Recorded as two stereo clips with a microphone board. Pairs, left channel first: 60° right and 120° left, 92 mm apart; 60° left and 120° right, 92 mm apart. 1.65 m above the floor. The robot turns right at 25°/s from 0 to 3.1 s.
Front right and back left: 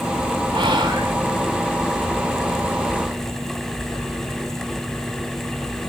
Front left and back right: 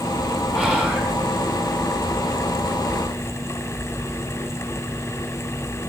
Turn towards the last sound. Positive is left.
turn(degrees=-140)